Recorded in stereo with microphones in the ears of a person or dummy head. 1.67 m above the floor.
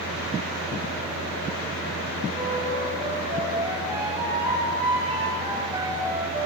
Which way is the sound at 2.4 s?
20° right (ahead or behind).